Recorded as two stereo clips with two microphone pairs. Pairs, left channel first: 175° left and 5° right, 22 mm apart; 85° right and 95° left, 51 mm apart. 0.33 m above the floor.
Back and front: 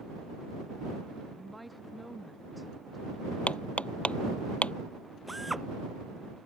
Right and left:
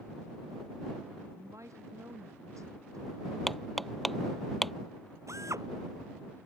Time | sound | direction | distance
1.4 | a woman speaking | 85° left | ?
3.5 | hammering | 175° right | ?
5.3 | a drill | 80° left | ?